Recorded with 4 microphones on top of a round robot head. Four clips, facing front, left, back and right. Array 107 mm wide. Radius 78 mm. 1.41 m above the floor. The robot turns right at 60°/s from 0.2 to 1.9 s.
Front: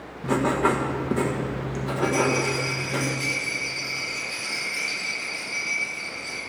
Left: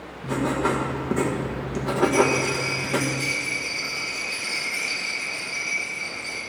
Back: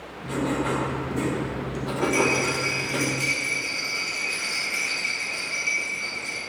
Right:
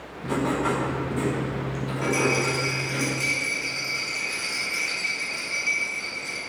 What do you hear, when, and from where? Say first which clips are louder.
0.2 s writing: left 1 dB, front 4 dB; 5° right, 1.5 m; by 3.0 s 95° left, 1.5 m
2.0 s a rattle: left 4 dB, even; 140° right, 4 m